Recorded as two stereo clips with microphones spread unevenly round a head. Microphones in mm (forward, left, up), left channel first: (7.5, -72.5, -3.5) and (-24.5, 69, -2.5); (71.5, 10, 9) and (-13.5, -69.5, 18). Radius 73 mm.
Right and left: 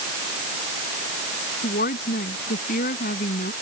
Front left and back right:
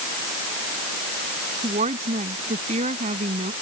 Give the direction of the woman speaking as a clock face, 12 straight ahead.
4 o'clock.